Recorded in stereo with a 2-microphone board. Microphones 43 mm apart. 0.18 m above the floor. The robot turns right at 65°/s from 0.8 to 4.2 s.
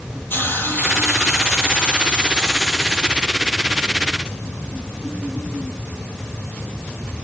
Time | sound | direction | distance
0.3 | a hiss | 55° left | 3.5 m